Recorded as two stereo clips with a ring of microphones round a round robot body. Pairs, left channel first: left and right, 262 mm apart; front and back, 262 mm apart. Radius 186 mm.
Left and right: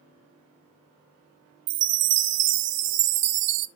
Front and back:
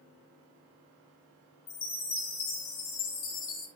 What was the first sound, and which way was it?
A chime, 55° right.